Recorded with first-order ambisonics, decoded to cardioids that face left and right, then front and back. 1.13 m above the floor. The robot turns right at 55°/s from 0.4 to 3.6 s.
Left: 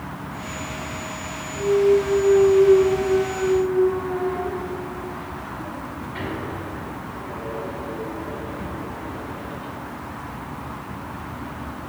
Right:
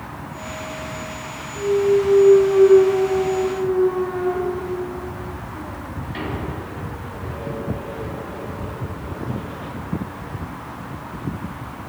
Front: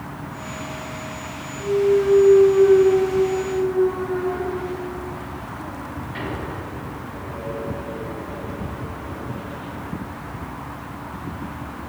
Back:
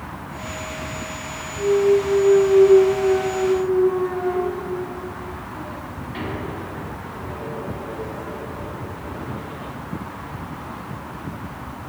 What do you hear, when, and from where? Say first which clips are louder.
1.5 s a clunk: even, back 1 dB; 135° left, 0.9 m; by 9.7 s 110° right, 0.9 m